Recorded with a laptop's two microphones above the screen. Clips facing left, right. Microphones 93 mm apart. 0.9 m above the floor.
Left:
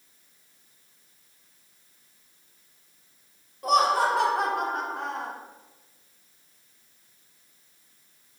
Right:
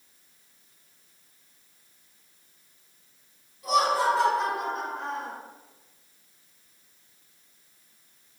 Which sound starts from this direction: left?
Laughter, at 3.6 s.